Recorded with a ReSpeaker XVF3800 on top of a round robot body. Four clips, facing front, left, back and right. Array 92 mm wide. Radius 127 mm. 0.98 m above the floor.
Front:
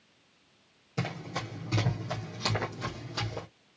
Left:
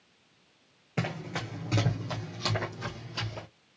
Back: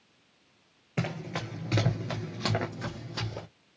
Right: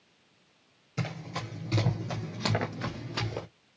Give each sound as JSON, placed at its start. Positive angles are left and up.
{"t": 1.0, "sound": "running footsteps", "azimuth_deg": 135, "distance_m": 1.3}